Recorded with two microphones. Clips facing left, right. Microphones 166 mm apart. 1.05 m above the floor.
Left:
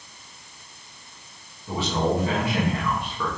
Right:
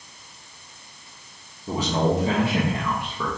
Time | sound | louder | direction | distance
1.7 | a man speaking | right 2 dB | 40° right (ahead or behind) | 1.5 m